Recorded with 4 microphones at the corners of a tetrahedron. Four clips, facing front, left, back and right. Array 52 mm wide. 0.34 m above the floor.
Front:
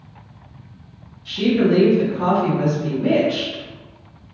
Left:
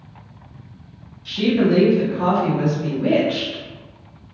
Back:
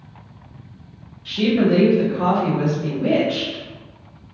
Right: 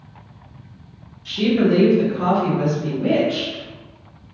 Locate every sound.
1.2 s a woman speaking: 165° right, 1.7 m; by 3.6 s 110° left, 1.5 m